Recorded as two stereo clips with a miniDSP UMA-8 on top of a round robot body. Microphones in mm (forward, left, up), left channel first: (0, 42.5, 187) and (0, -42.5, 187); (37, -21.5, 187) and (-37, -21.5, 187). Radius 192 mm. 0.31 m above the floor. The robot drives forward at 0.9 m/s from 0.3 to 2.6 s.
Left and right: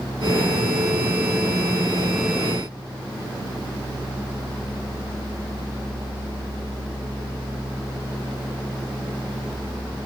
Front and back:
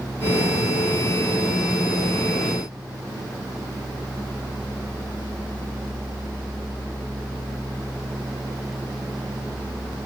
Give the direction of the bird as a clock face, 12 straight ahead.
No bird in this recording.